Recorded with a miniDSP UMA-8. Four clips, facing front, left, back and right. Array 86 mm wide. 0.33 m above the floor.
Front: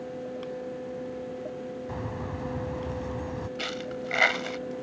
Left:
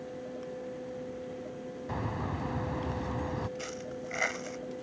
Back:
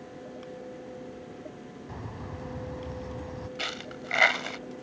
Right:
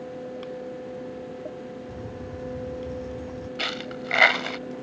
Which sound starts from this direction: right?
A dropped coin, at 3.6 s.